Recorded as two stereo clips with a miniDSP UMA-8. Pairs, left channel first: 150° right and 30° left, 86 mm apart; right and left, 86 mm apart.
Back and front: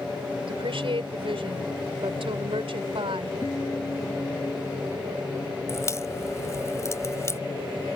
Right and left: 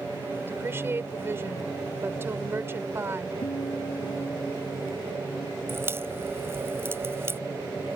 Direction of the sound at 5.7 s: 155° left.